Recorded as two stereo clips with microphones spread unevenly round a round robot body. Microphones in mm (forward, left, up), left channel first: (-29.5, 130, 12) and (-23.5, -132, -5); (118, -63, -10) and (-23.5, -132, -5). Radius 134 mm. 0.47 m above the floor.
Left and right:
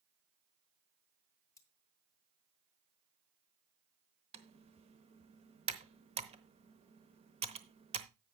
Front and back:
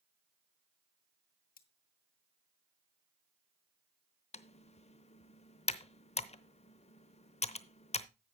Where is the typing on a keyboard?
20° right, 0.8 m.